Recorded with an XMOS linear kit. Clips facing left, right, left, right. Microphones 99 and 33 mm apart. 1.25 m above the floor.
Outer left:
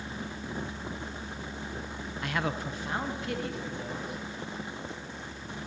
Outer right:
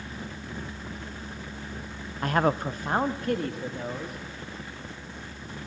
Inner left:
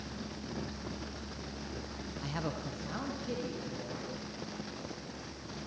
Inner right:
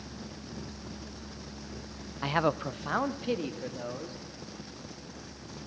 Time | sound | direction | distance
2.2 | a man speaking | 40° right (ahead or behind) | 0.7 m